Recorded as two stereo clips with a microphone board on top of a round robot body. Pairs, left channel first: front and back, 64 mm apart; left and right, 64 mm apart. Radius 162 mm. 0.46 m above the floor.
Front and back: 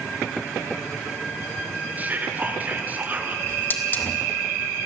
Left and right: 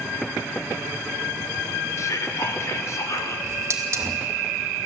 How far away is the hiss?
About 2.5 m.